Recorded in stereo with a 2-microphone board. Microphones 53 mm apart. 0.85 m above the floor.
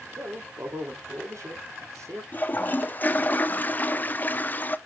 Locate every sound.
0.2 s a man speaking: 70° right (ahead or behind), 2 m
2.3 s a toilet flushing: 35° left (ahead or behind), 0.5 m